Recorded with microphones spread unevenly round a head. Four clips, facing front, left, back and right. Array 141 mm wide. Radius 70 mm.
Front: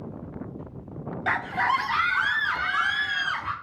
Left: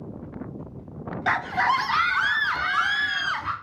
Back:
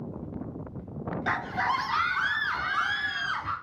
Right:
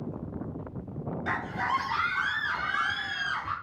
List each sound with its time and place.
1.3 s a scream: 65° left, 1.2 m; by 3.5 s 60° left, 3.5 m